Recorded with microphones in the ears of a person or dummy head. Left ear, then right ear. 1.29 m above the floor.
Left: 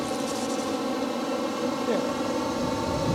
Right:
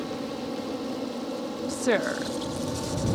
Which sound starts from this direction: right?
A woman speaking, at 1.7 s.